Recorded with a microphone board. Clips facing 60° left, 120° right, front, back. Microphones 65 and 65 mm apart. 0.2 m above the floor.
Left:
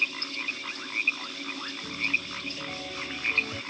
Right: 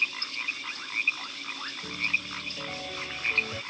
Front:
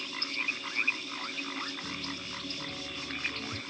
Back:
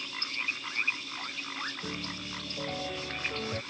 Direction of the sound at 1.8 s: 160° left.